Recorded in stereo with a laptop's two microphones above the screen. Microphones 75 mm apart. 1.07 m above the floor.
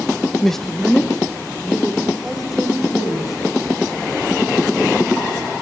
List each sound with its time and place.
0.4 s a man speaking: 10° left (ahead or behind), 0.7 m; by 3.3 s 5° right (ahead or behind), 5.5 m